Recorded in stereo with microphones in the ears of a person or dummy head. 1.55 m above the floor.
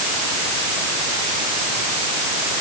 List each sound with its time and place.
Only background noise.